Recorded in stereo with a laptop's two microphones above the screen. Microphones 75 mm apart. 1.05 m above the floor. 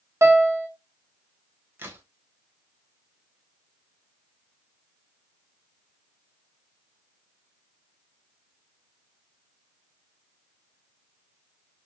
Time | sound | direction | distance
0.2 | a piano | 40° right (ahead or behind) | 0.6 m
1.8 | a crack | 25° right (ahead or behind) | 0.6 m